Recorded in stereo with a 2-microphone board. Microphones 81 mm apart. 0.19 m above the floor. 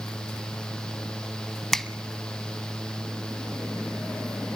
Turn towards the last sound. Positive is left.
turn(degrees=5)  # may be behind; listen again after turning